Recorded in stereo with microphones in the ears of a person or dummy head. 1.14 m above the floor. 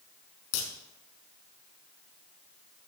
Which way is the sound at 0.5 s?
80° left.